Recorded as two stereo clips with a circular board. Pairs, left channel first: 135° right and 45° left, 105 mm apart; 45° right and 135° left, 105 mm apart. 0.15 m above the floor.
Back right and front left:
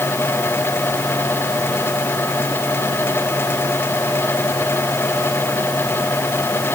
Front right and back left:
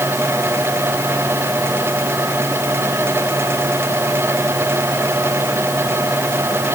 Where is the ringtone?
No ringtone in this recording.